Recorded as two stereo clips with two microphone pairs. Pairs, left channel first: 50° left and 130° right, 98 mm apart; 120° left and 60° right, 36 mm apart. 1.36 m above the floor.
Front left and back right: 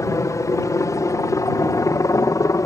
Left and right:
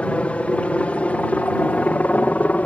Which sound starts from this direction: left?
A helicopter, at 0.0 s.